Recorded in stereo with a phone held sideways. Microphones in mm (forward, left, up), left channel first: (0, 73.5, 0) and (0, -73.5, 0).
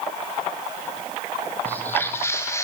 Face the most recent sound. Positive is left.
turn(degrees=20)  # may be behind; listen again after turning